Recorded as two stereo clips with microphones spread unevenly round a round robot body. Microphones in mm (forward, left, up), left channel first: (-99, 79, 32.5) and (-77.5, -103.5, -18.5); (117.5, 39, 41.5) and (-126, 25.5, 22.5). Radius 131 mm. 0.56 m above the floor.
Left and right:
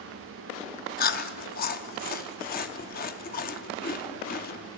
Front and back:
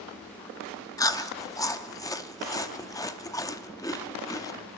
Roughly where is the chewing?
Left.